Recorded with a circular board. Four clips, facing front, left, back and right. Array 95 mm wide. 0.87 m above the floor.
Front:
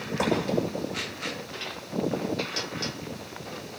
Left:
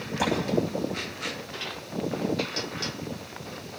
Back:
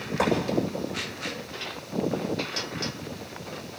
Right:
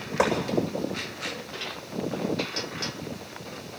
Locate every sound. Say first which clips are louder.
0.2 s a gunshot: right 3 dB, back 1 dB; 95° right, 8.5 m